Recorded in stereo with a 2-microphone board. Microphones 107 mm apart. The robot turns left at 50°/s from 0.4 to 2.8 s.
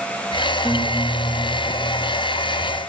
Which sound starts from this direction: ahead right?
A guitar, at 0.6 s.